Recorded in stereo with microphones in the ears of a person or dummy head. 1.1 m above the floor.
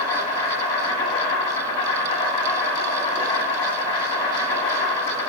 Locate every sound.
0.0 s an insect: 30° left (ahead or behind), 1.3 m